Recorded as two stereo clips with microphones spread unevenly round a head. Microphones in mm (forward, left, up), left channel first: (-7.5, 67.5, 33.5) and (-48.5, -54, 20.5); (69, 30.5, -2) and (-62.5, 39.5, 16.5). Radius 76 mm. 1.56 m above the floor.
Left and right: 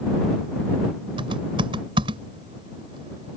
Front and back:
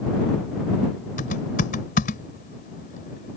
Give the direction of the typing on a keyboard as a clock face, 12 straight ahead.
2 o'clock.